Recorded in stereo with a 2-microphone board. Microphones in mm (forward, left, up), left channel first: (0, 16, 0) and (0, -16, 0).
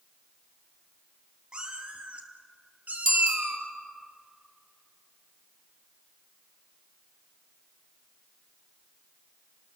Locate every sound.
1.5 s a cat meowing: 30° right (ahead or behind), 2 m; by 3.7 s 65° right (ahead or behind), 2 m
3.0 s a bicycle bell: 5° right (ahead or behind), 2 m